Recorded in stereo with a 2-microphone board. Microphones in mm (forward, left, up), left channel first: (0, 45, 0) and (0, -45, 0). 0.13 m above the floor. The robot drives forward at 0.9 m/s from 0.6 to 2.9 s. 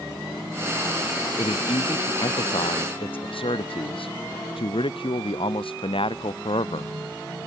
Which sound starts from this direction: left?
A man speaking, at 1.4 s.